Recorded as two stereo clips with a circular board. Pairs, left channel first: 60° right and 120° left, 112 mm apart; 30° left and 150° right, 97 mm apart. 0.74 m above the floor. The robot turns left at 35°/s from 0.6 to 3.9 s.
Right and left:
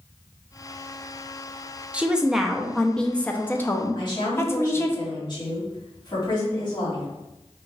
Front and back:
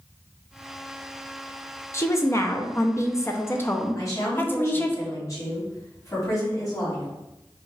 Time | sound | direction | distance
1.9 | a woman speaking | 50° left | 0.6 m
4.0 | a woman speaking | 20° right | 2 m